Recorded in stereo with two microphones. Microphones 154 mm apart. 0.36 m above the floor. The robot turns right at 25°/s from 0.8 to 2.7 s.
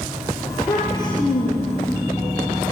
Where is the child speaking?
20° left (ahead or behind), 4.5 m; by 2.0 s 50° left (ahead or behind), 4.5 m.